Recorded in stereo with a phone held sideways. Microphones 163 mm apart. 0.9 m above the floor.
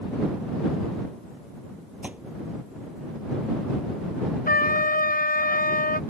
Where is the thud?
10° right (ahead or behind).